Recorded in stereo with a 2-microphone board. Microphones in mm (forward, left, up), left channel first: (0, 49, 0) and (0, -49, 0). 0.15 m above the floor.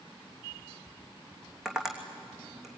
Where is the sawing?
No sawing in this recording.